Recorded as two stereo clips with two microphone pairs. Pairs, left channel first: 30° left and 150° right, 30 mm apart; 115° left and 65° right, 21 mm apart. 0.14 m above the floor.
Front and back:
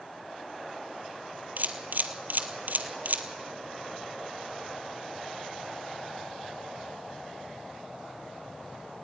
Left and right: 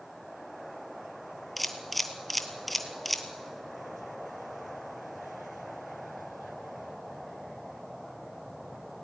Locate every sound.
1.6 s a camera shutter: 155° right, 1.4 m